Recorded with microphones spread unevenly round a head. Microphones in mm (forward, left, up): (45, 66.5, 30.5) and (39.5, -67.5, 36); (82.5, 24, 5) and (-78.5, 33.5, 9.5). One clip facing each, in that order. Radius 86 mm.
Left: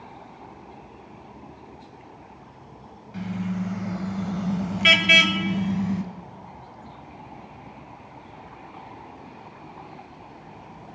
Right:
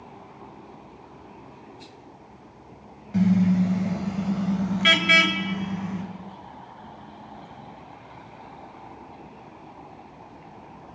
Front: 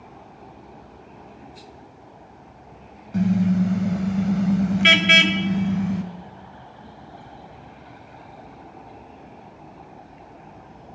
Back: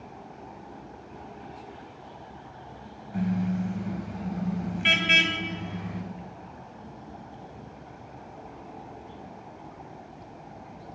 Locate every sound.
3.1 s a car horn: 50° right, 2 m; by 6.0 s 30° left, 3 m